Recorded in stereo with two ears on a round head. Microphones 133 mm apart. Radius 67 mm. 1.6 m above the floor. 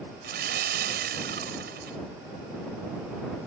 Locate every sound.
0.2 s sawing: 75° right (ahead or behind)